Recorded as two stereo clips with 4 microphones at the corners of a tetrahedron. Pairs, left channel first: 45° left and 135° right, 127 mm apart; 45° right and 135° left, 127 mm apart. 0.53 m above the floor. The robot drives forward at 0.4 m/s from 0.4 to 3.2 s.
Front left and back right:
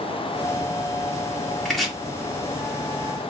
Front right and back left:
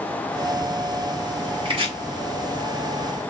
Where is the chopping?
130° left, 1.6 m; by 1.9 s 135° left, 1.7 m.